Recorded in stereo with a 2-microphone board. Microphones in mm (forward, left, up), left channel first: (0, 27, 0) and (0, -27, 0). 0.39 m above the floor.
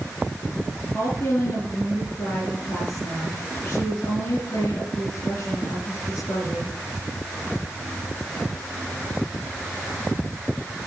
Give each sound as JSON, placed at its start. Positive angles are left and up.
{"t": 0.9, "sound": "a woman speaking", "side_deg": 70, "distance_m": 5.0}